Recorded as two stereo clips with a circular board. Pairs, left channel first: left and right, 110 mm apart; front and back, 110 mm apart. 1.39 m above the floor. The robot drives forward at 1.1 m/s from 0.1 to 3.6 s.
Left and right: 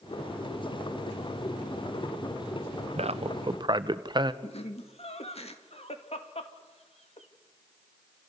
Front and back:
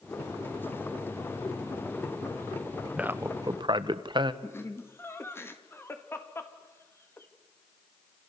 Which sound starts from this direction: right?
A man speaking, at 3.0 s.